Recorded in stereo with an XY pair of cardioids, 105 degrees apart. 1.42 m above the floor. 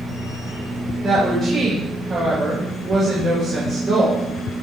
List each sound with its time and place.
0.0 s a machine running: 45° right, 5 m
1.0 s a woman speaking: 45° right, 7 m